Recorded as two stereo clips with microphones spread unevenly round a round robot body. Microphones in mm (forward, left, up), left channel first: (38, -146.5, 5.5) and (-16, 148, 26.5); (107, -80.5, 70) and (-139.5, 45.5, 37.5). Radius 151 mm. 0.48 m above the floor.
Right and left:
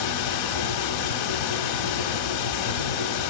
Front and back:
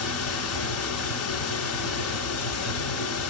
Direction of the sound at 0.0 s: 65° right.